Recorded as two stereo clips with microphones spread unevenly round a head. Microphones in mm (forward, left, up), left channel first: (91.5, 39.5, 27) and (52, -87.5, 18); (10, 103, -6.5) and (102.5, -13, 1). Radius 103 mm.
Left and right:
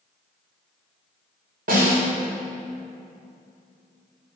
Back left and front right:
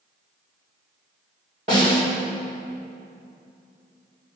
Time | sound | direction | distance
1.7 | a snare drum | 105° right | 4.5 m